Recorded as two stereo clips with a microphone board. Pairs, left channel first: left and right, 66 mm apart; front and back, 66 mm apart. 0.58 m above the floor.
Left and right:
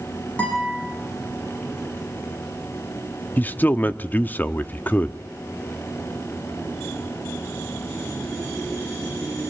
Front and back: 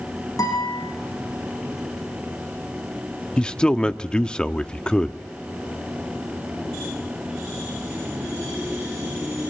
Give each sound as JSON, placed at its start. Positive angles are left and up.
{"t": 0.4, "sound": "a guitar", "azimuth_deg": 20, "distance_m": 9.5}
{"t": 3.4, "sound": "a man speaking", "azimuth_deg": 65, "distance_m": 0.7}